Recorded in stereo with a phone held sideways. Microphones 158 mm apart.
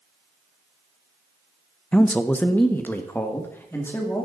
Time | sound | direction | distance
1.9 | a man speaking | 5° left (ahead or behind) | 0.7 m